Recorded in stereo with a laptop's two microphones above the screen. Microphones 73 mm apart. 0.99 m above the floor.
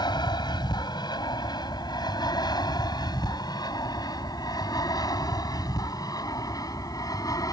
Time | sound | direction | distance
0.0 | an aircraft | 70° left (ahead or behind) | ?